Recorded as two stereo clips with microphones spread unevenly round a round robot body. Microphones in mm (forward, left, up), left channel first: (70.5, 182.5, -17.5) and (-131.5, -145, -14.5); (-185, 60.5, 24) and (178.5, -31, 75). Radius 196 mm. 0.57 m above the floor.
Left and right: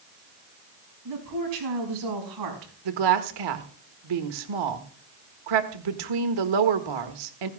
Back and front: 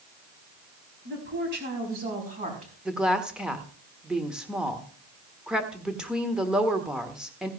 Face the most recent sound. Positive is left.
turn(degrees=-105)